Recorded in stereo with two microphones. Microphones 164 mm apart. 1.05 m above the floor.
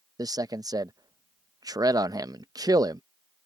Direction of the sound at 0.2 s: 25° right (ahead or behind).